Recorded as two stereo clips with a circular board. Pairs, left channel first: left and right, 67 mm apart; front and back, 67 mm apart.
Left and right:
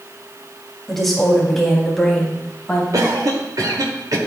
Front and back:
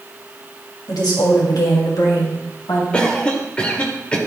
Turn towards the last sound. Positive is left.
turn(degrees=-75)